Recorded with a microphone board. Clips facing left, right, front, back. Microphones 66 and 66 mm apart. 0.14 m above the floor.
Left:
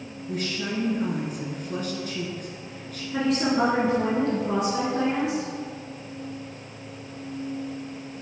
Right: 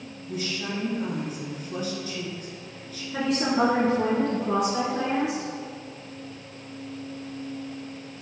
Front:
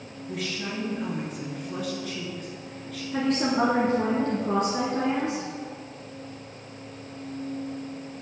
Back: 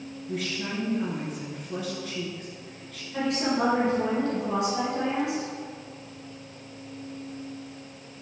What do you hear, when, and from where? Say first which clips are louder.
0.3 s a woman speaking: left 2 dB, even; 90° left, 1.8 m
3.1 s a woman speaking: left 1 dB, front 2 dB; straight ahead, 1.4 m